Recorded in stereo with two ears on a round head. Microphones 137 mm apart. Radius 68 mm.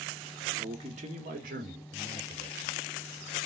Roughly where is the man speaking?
Right.